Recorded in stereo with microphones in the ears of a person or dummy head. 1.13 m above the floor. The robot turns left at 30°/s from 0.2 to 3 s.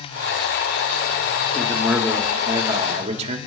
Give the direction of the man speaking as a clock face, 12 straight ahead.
12 o'clock.